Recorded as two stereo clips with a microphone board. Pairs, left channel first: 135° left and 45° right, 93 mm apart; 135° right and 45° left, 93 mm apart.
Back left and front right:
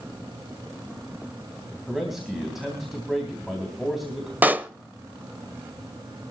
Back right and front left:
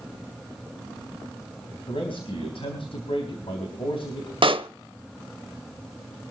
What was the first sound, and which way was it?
A man speaking, 130° right.